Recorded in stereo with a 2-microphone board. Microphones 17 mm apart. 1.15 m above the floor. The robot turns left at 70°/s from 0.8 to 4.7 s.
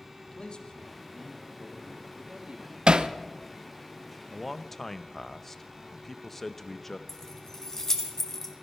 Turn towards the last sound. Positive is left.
turn(degrees=20)  # may be behind; listen again after turning